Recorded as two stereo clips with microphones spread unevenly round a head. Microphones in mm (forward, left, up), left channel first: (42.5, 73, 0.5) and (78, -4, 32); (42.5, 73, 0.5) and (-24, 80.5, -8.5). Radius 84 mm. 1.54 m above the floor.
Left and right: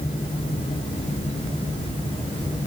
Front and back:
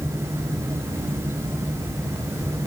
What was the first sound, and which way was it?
Only background noise.